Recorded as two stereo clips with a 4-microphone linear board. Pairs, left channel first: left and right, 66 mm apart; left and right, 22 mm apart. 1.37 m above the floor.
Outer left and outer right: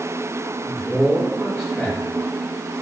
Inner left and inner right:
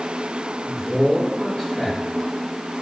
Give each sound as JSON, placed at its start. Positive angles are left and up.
{"t": 0.6, "sound": "a man speaking", "side_deg": 25, "distance_m": 2.0}